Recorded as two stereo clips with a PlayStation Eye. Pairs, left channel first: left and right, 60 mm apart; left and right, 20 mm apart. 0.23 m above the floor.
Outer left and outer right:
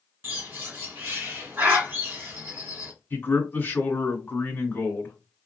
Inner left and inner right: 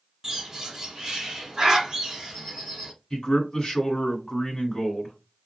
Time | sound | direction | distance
0.2 | a bird | 35° right (ahead or behind) | 1.7 m
3.1 | a man speaking | 35° left (ahead or behind) | 1.6 m